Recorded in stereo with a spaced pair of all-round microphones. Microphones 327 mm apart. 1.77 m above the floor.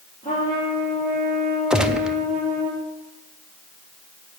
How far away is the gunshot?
About 0.7 m.